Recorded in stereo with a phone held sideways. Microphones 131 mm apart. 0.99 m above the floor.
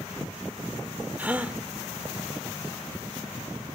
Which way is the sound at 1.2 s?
10° right (ahead or behind).